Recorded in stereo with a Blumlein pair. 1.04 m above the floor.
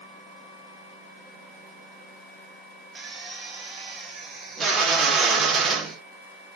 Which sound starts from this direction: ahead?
A drill, at 3.0 s.